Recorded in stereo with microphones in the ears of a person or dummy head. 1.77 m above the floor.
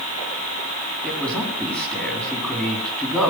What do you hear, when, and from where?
1.0 s a man speaking: 10° left (ahead or behind), 4 m